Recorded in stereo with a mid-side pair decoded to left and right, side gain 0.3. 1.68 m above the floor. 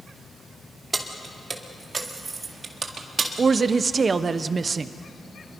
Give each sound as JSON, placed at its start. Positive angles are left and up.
{"t": 0.9, "sound": "keys jangling", "azimuth_deg": -35, "distance_m": 2.5}
{"t": 3.4, "sound": "a woman speaking", "azimuth_deg": -55, "distance_m": 1.0}